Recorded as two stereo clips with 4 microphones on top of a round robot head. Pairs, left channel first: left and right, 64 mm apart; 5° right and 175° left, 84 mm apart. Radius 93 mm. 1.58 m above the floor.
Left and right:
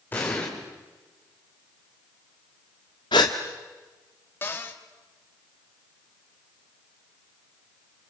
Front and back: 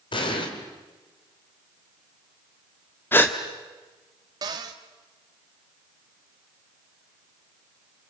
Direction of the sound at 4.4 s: 140° left.